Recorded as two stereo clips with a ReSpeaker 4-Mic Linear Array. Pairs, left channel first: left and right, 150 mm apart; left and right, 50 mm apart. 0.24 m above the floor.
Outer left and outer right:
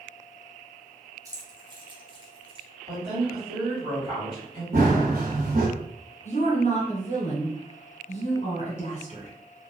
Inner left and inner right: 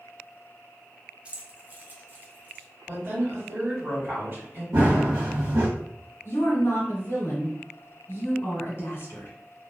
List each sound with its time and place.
1.2 s keys jangling: 25° right (ahead or behind), 0.6 m; by 2.6 s 40° right (ahead or behind), 1.2 m
2.9 s a woman speaking: 35° right (ahead or behind), 1.9 m
4.7 s running footsteps: 85° right, 1.2 m
6.2 s a woman speaking: 50° left (ahead or behind), 1.7 m